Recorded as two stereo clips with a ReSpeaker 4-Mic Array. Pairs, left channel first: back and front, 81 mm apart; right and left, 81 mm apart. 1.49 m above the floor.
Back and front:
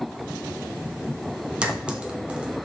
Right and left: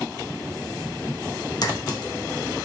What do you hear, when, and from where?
1.6 s a clink: 75° right, 1.1 m